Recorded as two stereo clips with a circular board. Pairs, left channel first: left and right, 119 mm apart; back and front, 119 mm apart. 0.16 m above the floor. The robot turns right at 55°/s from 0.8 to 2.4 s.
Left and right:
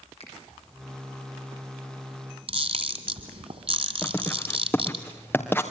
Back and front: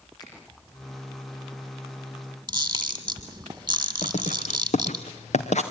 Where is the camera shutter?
55° right, 2.5 m.